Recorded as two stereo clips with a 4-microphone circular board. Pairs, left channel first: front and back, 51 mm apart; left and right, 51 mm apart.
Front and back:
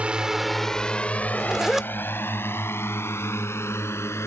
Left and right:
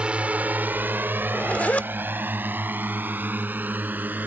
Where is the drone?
140° right; by 4.3 s 35° right.